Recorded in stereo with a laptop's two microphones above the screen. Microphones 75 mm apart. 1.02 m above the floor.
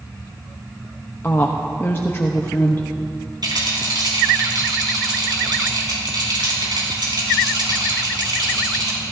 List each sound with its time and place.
1.2 s a woman speaking: 30° left (ahead or behind), 0.9 m
3.4 s a rattle: 70° right (ahead or behind), 4 m